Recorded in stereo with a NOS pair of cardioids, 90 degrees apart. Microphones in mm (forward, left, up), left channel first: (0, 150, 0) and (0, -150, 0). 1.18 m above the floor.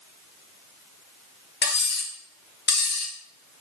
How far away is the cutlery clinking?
About 1.0 m.